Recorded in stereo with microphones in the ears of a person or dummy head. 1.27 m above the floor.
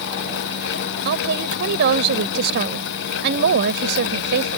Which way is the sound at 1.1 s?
65° right (ahead or behind).